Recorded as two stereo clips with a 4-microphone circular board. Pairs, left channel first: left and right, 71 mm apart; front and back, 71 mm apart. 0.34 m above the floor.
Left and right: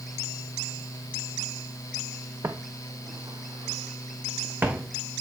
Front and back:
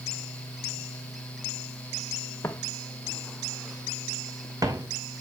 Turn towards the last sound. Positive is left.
turn(degrees=-160)